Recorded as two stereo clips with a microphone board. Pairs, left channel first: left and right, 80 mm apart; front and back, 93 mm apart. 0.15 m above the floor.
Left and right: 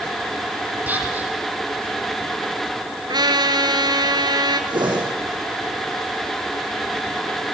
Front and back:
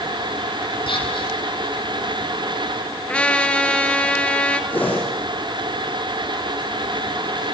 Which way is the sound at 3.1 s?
75° right.